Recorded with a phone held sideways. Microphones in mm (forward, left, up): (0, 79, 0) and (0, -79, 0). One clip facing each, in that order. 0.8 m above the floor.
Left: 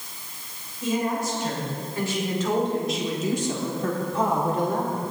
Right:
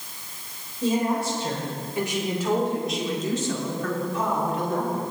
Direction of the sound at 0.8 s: 35° right (ahead or behind).